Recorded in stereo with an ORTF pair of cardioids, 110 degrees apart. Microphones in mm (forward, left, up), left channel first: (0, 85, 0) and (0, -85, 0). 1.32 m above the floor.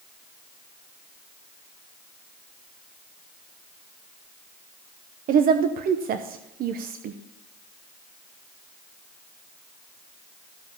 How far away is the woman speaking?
About 0.8 m.